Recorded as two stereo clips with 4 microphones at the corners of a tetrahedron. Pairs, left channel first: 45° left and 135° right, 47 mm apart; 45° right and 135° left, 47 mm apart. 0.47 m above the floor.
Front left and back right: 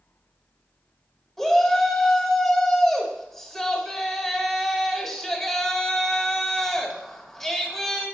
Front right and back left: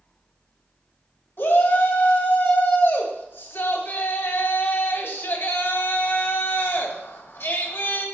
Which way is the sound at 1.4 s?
35° right.